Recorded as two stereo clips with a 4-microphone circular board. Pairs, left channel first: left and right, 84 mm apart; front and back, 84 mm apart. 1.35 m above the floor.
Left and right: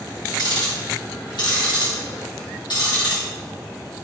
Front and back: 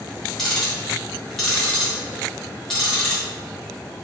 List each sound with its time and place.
0.4 s ticking: 85° left, 1.2 m